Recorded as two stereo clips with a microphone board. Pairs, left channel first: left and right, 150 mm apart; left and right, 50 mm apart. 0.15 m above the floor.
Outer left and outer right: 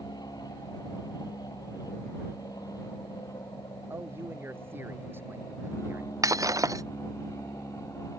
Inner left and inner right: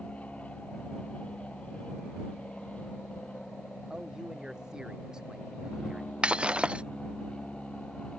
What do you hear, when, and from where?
0.0 s an aircraft: 25° left (ahead or behind); by 8.2 s 20° left (ahead or behind)
3.9 s a man speaking: 15° right (ahead or behind)
6.2 s breaking glass: 20° right (ahead or behind)